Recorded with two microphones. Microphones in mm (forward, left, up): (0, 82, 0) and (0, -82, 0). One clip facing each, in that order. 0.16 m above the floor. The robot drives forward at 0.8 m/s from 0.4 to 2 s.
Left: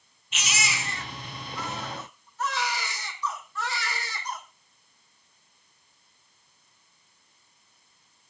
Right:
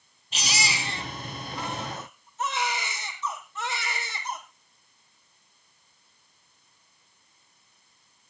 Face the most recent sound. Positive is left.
turn(degrees=-20)  # may be behind; listen again after turning